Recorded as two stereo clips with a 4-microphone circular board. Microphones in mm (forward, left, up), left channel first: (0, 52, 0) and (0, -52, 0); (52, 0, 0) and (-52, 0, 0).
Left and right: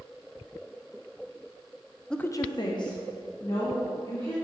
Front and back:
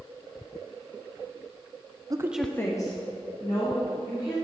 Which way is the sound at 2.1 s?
170° left.